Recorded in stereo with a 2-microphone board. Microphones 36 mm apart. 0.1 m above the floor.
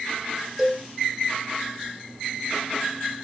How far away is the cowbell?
About 3 m.